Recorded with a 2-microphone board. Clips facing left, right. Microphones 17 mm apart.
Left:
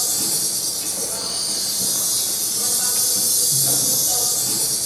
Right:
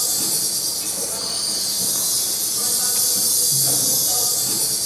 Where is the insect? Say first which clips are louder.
Even; 10° right (ahead or behind), 1.8 m.